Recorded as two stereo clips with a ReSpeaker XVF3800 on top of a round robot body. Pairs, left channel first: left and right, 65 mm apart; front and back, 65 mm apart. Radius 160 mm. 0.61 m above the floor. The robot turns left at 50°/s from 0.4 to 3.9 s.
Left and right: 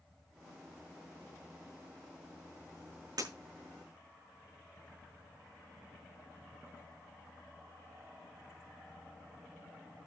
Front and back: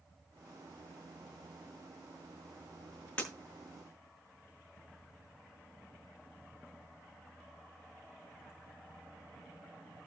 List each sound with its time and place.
3.2 s breaking glass: 70° right, 6 m; by 3.3 s 80° right, 6 m